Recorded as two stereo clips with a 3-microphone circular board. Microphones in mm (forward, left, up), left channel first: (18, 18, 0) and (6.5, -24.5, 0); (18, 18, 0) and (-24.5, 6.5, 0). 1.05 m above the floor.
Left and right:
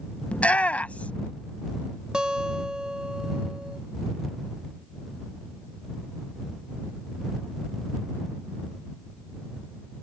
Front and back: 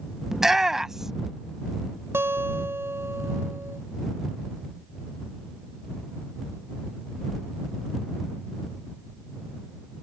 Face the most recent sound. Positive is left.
turn(degrees=-175)